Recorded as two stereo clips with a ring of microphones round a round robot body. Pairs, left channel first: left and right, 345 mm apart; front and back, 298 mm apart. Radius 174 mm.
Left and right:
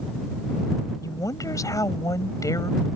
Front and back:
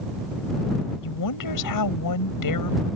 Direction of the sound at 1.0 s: 10° left.